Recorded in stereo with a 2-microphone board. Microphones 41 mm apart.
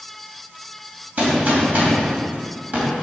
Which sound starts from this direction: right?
A gunshot, at 1.2 s.